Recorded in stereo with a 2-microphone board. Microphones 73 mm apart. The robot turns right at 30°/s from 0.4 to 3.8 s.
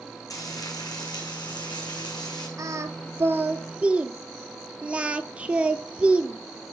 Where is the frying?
50° left, 4 m; by 2.5 s 115° left, 4 m.